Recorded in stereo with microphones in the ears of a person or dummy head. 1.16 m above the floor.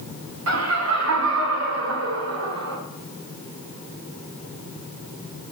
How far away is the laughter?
About 2.5 m.